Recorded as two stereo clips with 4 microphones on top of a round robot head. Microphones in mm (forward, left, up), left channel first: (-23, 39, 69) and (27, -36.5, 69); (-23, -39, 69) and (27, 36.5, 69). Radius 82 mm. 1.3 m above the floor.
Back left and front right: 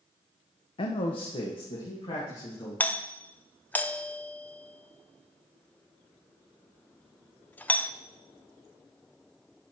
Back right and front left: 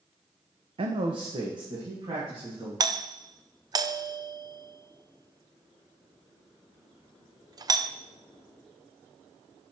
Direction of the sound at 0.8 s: 90° left.